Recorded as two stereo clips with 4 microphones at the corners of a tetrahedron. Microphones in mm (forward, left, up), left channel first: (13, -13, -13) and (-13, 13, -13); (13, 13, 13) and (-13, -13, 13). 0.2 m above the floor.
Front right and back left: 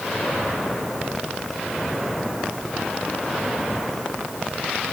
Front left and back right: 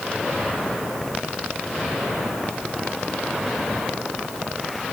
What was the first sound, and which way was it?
Only background noise.